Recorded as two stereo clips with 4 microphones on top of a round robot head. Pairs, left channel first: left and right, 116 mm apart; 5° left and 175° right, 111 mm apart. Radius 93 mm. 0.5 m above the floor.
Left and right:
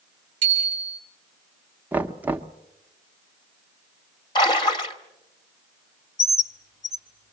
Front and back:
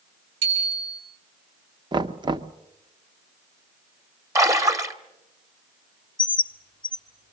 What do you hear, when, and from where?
0.4 s a bicycle bell: 130° right, 7.5 m
1.9 s knocking: 160° right, 0.8 m
4.3 s a splash: 130° left, 2.0 m
6.2 s a bird: 35° left, 1.1 m